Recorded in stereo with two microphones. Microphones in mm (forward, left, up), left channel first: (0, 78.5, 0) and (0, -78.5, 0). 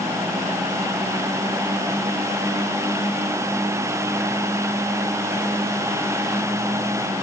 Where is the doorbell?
No doorbell in this recording.